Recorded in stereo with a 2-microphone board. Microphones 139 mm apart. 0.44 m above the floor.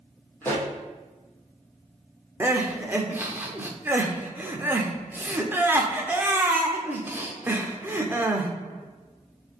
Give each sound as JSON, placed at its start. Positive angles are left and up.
{"t": 0.4, "sound": "a pop", "side_deg": 15, "distance_m": 2.5}
{"t": 2.4, "sound": "crying", "side_deg": -15, "distance_m": 1.0}